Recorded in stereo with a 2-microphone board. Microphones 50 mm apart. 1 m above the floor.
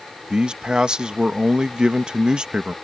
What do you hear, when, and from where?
0.3 s a man speaking: 15° right (ahead or behind)